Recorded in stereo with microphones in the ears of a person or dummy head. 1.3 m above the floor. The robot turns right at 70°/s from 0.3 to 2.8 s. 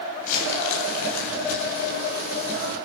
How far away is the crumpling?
About 8.5 m.